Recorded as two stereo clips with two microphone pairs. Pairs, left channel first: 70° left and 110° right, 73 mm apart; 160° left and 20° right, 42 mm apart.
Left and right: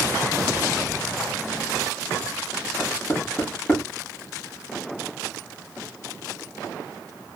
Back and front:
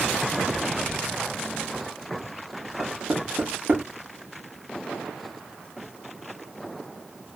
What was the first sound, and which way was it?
Knocking, 15° left.